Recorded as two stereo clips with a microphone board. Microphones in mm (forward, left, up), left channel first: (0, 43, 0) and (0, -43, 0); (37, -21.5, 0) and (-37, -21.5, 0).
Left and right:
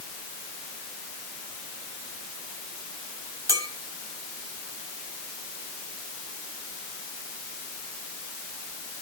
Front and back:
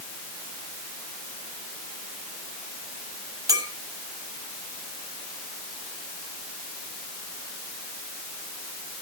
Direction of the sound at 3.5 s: 140° right.